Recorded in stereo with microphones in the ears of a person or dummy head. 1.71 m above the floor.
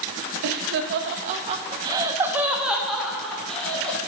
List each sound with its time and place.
0.4 s laughter: 45° right (ahead or behind), 0.7 m; by 4.0 s 5° left (ahead or behind), 1.6 m